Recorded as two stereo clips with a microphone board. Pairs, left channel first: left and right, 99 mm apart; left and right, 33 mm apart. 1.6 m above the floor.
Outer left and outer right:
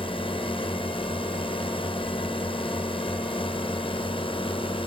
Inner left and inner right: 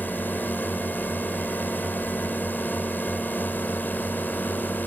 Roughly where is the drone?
Left.